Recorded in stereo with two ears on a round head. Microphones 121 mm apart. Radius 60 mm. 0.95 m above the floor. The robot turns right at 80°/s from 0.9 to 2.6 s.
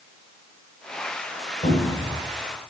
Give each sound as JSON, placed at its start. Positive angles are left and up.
{"t": 1.6, "sound": "a cupboard door", "azimuth_deg": 65, "distance_m": 1.3}